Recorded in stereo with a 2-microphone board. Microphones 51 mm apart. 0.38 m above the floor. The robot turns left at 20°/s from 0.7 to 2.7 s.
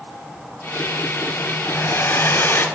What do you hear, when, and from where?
1.7 s a hair dryer: 55° left (ahead or behind), 1.9 m; by 2.7 s 50° left (ahead or behind), 1.9 m